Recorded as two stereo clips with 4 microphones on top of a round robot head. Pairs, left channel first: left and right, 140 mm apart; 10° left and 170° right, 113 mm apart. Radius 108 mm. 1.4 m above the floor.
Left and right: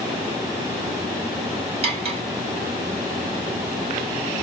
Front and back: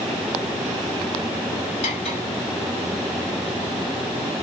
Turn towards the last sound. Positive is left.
turn(degrees=-45)